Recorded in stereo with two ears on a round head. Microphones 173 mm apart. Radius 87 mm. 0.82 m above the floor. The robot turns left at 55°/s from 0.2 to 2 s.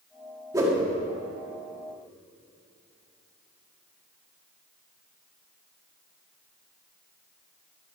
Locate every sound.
0.5 s a whoosh: 20° right (ahead or behind), 1.9 m; by 0.8 s 5° right (ahead or behind), 1.9 m